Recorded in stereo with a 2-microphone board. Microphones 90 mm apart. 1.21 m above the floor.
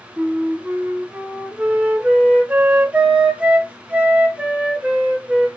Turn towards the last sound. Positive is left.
turn(degrees=-15)  # may be behind; listen again after turning